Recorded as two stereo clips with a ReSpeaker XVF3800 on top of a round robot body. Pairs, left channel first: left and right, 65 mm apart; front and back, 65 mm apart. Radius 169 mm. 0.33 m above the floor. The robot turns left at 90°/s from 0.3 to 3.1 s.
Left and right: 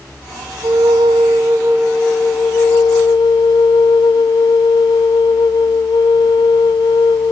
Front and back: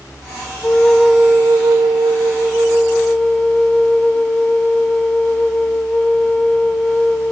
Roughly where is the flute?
Ahead right.